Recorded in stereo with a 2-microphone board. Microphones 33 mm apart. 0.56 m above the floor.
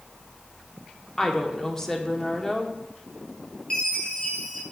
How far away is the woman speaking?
About 1.0 m.